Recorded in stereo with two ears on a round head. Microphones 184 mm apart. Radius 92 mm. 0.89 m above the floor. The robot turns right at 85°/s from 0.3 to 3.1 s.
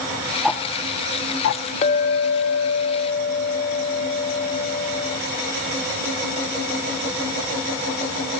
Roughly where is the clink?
Ahead left.